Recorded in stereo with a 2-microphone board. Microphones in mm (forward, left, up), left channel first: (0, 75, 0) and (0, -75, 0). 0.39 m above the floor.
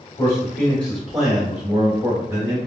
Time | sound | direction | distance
0.2 | a man speaking | 20° left (ahead or behind) | 1.2 m